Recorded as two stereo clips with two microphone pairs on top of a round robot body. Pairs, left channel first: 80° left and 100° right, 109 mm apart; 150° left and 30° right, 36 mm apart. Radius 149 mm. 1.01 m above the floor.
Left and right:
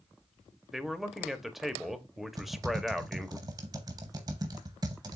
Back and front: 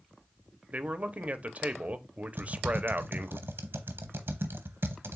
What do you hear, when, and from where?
0.7 s a man speaking: 10° right, 0.9 m
2.4 s typing on a keyboard: 45° right, 0.7 m